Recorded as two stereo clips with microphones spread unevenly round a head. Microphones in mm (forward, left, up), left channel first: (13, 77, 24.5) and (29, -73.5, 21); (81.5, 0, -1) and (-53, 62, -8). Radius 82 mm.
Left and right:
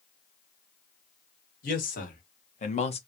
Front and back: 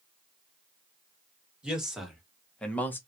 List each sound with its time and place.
1.6 s a man speaking: 70° left, 1.8 m; by 3.0 s 50° left, 1.0 m